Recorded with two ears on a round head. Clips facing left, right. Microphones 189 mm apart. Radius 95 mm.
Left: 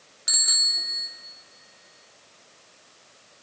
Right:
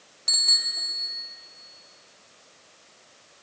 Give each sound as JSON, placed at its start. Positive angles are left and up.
{"t": 0.3, "sound": "a bicycle bell", "side_deg": 20, "distance_m": 3.0}